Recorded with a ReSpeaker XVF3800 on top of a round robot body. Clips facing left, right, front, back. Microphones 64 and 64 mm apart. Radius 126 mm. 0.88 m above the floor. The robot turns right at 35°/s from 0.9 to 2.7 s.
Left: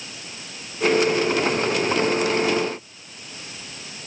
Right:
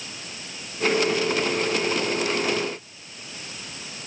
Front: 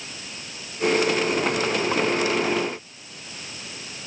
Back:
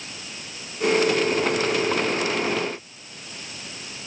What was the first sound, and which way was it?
Only background noise.